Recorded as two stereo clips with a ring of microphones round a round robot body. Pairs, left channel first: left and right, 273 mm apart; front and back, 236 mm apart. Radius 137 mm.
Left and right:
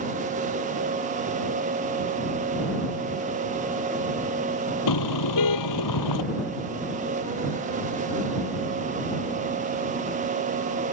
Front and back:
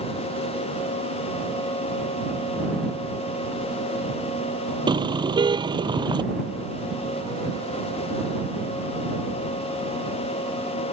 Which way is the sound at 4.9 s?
110° left.